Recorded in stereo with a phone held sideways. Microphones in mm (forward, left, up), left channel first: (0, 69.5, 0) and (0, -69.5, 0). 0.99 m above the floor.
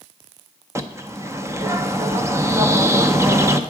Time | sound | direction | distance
0.8 | a bird | 20° right (ahead or behind) | 0.5 m